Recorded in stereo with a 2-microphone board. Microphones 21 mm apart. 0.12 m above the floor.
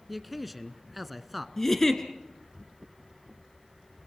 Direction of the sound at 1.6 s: 15° left (ahead or behind).